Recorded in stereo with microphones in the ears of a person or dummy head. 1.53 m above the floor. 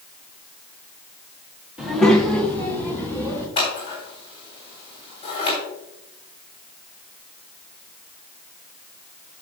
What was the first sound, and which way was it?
A child speaking, centre (ahead or behind).